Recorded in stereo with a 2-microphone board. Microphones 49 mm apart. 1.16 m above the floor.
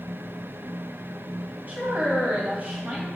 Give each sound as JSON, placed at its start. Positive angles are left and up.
{"t": 1.7, "sound": "a woman speaking", "side_deg": -40, "distance_m": 2.5}